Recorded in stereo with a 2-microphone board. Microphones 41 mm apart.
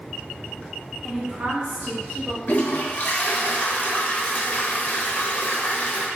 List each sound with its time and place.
1.0 s a woman speaking: centre (ahead or behind), 0.7 m; by 2.4 s 70° right (ahead or behind), 1.7 m
2.5 s a toilet flushing: 40° left (ahead or behind), 0.6 m